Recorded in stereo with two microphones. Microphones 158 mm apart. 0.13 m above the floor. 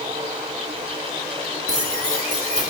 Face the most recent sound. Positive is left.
turn(degrees=-20)  # may be behind; listen again after turning